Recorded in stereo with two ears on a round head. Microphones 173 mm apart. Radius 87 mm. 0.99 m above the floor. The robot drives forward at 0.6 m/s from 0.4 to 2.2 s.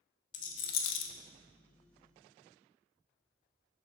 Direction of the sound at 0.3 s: 40° left (ahead or behind).